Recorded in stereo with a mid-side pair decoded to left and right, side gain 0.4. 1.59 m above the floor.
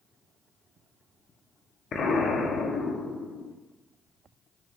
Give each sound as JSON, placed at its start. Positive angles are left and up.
{"t": 1.9, "sound": "an explosion", "azimuth_deg": 65, "distance_m": 2.5}